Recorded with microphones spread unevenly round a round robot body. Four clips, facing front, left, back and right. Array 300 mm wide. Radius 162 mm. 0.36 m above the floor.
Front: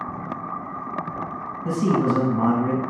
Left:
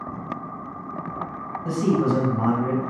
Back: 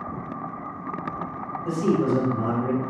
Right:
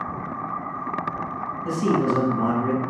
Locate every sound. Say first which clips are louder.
1.6 s a man speaking: even, front 1 dB; 15° left, 3 m